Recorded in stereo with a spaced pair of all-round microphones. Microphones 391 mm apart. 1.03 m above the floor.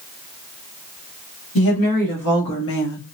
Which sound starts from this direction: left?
A woman speaking, at 1.6 s.